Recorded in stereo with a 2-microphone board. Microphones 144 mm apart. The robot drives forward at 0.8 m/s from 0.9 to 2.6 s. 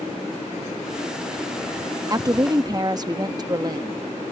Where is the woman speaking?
25° right (ahead or behind); by 4.0 s 30° right (ahead or behind).